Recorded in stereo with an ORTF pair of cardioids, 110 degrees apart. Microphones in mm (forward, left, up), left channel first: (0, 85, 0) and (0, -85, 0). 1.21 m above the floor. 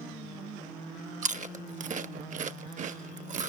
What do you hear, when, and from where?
1.2 s chewing: 45° right, 0.8 m